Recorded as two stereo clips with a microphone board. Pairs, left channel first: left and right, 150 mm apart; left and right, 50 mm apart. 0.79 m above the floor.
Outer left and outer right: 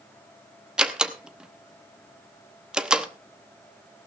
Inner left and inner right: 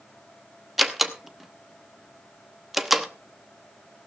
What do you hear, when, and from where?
0.8 s a door slam: 5° right (ahead or behind), 0.8 m